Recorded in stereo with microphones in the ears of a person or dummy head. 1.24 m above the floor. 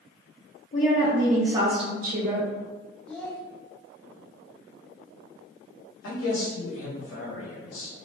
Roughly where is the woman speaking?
Left.